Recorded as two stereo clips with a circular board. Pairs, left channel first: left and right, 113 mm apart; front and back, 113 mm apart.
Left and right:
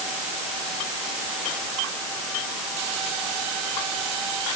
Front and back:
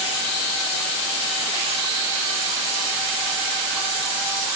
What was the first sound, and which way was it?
Only background noise.